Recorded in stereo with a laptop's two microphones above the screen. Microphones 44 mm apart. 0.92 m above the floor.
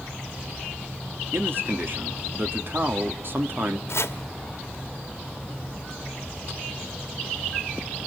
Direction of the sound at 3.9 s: 70° left (ahead or behind).